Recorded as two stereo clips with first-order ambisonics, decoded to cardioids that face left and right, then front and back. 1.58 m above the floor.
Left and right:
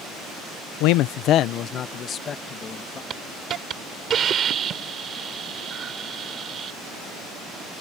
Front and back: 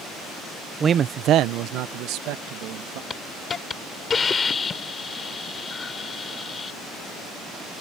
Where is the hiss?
55° right.